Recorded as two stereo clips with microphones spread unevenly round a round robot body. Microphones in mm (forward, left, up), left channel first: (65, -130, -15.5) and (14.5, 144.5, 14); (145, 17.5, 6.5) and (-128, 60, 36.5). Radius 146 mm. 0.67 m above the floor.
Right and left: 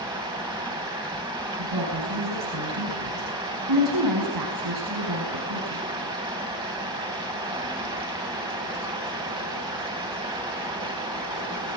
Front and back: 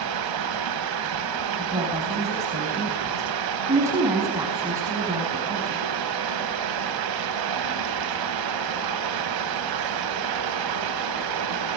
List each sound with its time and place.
0.0 s running water: 175° left, 2.5 m
1.6 s a woman speaking: 90° left, 5.5 m